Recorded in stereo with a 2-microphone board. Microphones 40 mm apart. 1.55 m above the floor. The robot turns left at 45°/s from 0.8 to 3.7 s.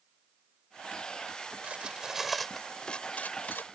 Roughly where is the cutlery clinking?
Right.